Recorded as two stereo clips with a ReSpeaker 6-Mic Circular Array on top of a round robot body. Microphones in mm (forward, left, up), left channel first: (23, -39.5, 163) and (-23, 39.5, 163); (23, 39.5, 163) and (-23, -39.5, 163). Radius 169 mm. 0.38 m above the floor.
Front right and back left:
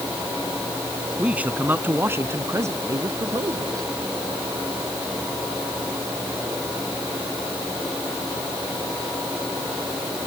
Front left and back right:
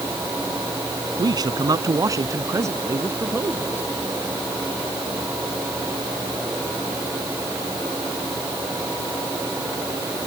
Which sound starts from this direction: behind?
A man speaking, at 1.2 s.